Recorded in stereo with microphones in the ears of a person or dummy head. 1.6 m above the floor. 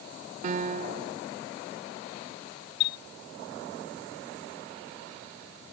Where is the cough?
No cough in this recording.